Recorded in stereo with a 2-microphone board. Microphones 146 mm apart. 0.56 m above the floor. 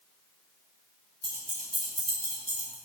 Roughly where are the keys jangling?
Right.